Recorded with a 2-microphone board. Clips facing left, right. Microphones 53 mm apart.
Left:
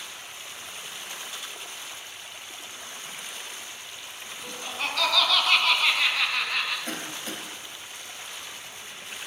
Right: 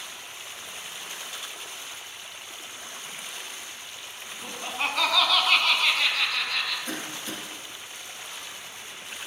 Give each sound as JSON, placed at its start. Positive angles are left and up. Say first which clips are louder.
{"t": 4.4, "sound": "laughter", "louder": "right 2 dB", "side_deg": -30, "distance_m": 1.2}
{"t": 6.9, "sound": "a cough", "louder": "even", "side_deg": 50, "distance_m": 2.5}